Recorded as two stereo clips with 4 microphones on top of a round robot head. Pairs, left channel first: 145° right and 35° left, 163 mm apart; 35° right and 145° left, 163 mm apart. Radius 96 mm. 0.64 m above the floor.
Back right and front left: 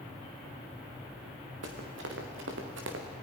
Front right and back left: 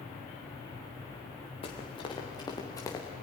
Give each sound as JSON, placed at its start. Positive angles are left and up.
{"t": 1.6, "sound": "running footsteps", "azimuth_deg": 25, "distance_m": 3.5}